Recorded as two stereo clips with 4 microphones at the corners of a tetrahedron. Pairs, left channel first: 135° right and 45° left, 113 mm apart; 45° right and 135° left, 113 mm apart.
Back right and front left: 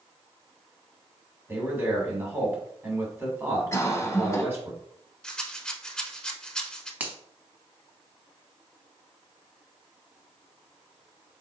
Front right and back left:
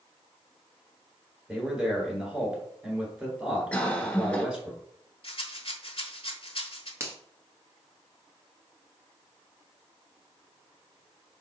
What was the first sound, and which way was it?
A man speaking, 65° left.